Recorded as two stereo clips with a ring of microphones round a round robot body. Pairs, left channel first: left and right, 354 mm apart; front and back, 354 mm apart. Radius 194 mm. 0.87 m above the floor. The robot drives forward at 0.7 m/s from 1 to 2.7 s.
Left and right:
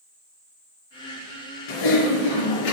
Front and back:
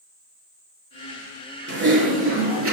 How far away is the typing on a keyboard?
About 5 m.